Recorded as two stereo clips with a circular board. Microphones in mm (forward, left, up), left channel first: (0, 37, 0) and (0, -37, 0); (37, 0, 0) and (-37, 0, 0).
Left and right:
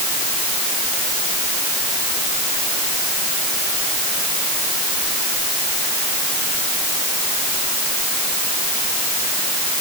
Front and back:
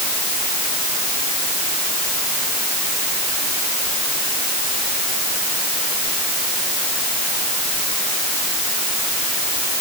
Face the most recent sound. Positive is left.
No sound to turn to.